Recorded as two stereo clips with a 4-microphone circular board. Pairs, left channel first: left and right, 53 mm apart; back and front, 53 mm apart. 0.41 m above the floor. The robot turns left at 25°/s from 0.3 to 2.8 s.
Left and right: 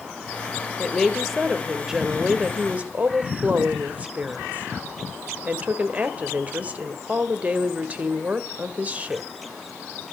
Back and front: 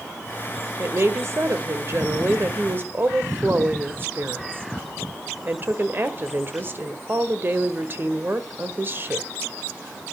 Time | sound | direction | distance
0.8 | a woman speaking | 15° left | 1.4 m